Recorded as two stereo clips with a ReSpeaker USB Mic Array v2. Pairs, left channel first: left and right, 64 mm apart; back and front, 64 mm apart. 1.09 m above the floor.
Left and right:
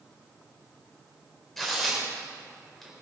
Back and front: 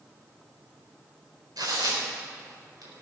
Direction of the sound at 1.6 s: 5° left.